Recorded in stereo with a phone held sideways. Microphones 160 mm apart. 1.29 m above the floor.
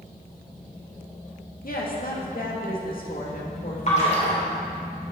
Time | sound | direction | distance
1.6 | a woman speaking | 70° left (ahead or behind) | 1.9 m
3.9 | a splash | 50° left (ahead or behind) | 3 m